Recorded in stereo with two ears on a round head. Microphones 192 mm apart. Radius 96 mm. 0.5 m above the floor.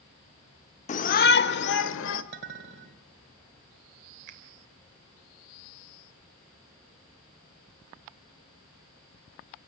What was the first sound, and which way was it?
A shout, 35° left (ahead or behind).